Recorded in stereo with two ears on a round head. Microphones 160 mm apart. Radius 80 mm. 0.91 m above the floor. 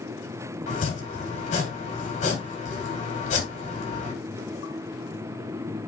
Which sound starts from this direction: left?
Chopping, at 0.7 s.